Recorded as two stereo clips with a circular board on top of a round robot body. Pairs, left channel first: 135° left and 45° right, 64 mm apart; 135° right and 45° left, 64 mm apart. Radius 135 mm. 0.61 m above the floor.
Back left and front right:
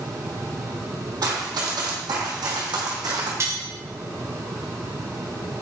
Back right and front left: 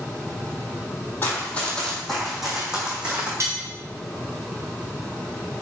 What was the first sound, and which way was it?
Running footsteps, 75° right.